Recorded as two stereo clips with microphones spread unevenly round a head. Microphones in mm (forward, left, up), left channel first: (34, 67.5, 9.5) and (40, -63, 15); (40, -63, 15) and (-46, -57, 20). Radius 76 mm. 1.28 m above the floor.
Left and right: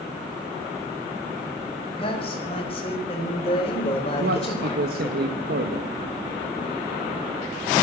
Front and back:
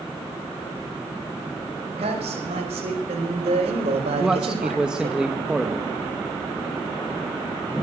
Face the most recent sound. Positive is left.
turn(degrees=-105)